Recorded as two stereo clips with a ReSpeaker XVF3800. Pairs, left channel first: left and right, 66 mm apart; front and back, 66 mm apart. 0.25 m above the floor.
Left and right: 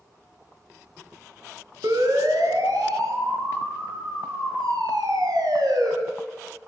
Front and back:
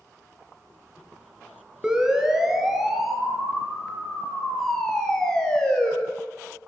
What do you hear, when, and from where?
1.8 s a siren: 100° right, 5.5 m; by 5.9 s 75° right, 7.5 m